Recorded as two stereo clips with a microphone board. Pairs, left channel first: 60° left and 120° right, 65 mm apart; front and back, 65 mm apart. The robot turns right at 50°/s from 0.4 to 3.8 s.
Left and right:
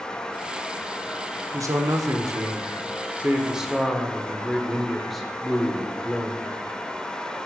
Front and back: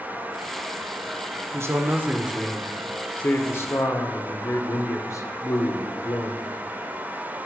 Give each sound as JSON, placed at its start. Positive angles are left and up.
{"t": 1.5, "sound": "a man speaking", "azimuth_deg": -145, "distance_m": 0.8}